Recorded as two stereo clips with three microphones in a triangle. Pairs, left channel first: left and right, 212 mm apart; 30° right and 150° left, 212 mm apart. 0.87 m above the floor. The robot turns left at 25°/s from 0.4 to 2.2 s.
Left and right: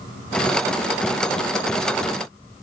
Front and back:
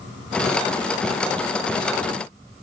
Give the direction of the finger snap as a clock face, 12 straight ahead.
I don't hear a finger snap.